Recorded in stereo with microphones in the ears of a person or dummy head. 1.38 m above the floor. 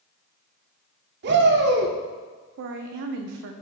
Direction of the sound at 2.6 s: 60° right (ahead or behind).